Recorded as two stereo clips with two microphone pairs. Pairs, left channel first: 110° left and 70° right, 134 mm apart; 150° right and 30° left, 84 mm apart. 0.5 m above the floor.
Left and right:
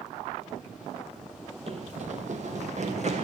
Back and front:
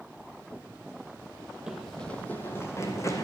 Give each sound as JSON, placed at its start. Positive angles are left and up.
{"t": 1.7, "sound": "running footsteps", "azimuth_deg": -50, "distance_m": 0.8}